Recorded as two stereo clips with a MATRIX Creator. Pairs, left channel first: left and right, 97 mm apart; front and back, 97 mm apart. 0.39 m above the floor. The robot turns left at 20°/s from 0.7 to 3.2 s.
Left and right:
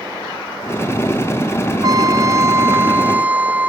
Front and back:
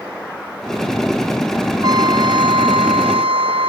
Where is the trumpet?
135° right; by 3.7 s 165° right.